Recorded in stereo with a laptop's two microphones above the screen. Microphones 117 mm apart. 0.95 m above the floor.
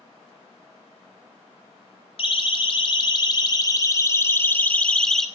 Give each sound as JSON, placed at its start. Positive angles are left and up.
{"t": 2.2, "sound": "a siren", "side_deg": 50, "distance_m": 3.0}